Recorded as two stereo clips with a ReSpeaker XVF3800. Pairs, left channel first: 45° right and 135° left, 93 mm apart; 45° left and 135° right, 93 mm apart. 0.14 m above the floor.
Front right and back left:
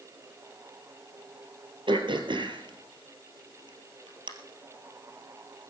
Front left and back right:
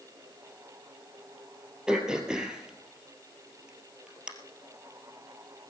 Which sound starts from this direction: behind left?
Throat clearing, at 1.9 s.